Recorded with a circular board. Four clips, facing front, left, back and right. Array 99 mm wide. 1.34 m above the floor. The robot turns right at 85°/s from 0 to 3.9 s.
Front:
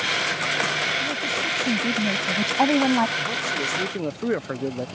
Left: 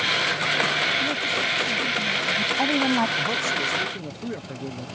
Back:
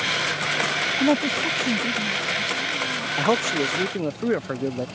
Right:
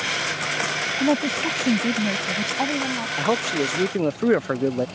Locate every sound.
1.0 s a woman speaking: 145° right; by 3.1 s 35° left
3.2 s a man speaking: 155° right; by 4.9 s 90° right